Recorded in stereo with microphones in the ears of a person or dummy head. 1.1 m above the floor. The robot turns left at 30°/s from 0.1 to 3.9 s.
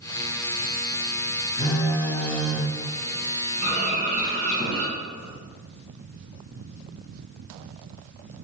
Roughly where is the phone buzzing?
Ahead left.